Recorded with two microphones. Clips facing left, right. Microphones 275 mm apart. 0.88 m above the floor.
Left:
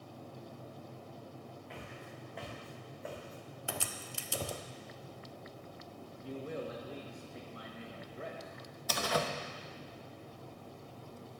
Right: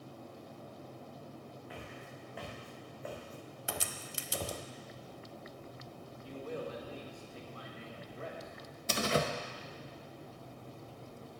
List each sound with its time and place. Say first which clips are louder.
1.7 s footsteps: even; 5° right (ahead or behind), 4 m; by 4.6 s 10° left (ahead or behind), 1.1 m
3.7 s a crack: even; 20° right (ahead or behind), 0.5 m
6.2 s a man speaking: left 1 dB; 20° left (ahead or behind), 1.3 m
8.9 s a door slam: right 3 dB; 25° right (ahead or behind), 0.7 m